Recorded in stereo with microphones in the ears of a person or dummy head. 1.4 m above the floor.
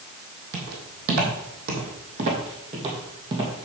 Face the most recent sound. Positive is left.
turn(degrees=-25)  # may be behind; listen again after turning